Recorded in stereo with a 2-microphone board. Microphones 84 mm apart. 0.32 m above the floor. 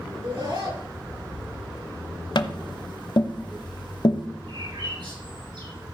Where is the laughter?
75° right (ahead or behind), 5.5 m.